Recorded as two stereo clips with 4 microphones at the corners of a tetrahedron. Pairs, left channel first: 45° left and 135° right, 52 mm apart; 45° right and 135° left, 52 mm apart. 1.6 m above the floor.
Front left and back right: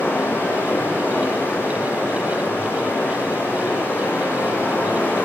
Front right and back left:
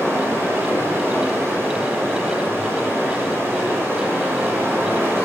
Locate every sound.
0.0 s running water: 95° left, 9 m